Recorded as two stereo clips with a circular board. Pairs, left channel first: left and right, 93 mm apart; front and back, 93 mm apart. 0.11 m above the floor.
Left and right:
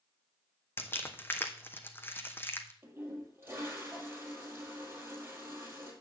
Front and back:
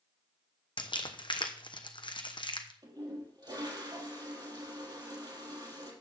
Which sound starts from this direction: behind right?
A toilet flushing, at 2.8 s.